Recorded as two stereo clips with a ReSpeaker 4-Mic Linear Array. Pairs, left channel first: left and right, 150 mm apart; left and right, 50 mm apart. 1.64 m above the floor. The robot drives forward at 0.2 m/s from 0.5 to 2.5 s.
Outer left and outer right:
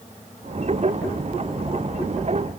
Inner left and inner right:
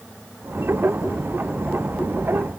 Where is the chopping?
I don't hear chopping.